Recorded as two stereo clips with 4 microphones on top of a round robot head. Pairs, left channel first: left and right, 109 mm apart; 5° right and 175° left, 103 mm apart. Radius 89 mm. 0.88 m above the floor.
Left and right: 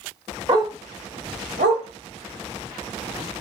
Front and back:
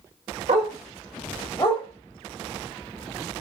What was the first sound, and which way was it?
A dog barking, 145° right.